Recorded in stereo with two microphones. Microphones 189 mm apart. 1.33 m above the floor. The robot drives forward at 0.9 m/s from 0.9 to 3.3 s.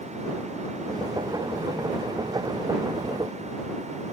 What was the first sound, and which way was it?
Only background noise.